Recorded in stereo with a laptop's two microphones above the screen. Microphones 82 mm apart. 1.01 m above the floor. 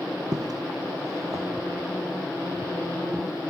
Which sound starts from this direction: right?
Footsteps, at 0.3 s.